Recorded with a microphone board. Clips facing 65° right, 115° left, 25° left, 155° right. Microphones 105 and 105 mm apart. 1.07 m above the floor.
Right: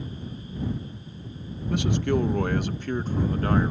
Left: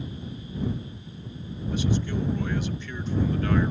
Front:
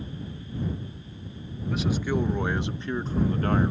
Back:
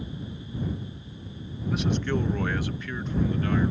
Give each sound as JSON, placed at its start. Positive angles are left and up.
{"t": 1.7, "sound": "a man speaking", "azimuth_deg": -70}